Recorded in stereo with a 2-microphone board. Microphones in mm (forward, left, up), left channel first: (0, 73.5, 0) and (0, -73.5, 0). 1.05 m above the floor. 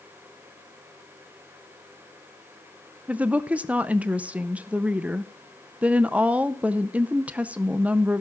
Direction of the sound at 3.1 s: 10° right (ahead or behind).